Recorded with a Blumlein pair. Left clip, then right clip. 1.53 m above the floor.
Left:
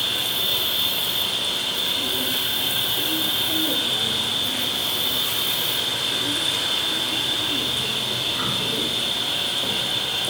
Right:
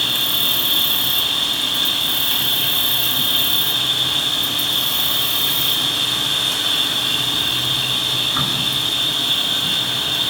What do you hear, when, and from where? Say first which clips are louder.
0.0 s an insect: right 5 dB; 35° right, 2.5 m